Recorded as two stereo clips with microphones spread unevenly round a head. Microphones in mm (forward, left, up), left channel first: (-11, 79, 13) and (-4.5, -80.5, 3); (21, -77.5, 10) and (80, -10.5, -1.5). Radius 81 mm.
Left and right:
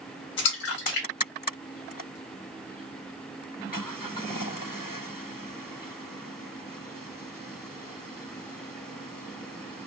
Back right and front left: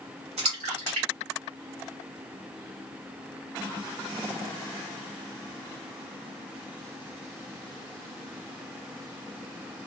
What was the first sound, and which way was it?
A splash, 80° left.